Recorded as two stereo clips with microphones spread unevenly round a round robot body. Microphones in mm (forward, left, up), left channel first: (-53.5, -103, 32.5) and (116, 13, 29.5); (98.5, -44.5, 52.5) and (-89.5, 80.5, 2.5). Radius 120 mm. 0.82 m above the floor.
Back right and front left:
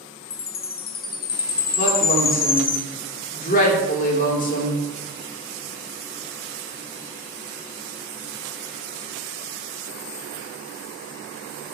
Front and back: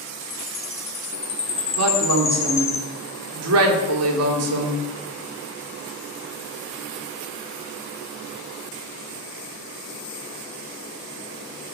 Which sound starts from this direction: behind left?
A woman speaking, at 1.8 s.